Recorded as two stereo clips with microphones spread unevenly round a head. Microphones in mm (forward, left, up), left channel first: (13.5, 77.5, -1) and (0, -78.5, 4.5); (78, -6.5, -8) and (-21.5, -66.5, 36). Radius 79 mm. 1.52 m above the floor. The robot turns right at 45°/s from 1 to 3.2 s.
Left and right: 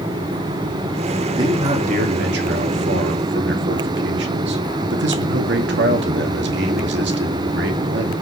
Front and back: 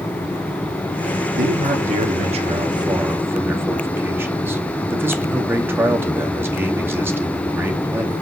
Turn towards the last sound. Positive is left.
turn(degrees=-80)